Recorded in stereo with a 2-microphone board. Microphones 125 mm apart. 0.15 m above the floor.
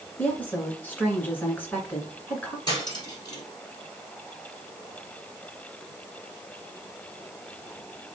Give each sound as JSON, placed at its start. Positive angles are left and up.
{"t": 0.2, "sound": "a woman speaking", "side_deg": 15, "distance_m": 1.6}
{"t": 2.7, "sound": "cutlery clinking", "side_deg": 30, "distance_m": 2.5}